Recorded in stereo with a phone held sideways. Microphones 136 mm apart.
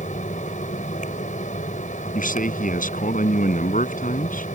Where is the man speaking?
80° left.